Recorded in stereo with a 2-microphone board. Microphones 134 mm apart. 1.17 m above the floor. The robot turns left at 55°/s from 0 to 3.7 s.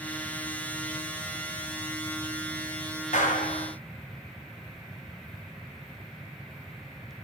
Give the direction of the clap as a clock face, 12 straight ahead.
8 o'clock.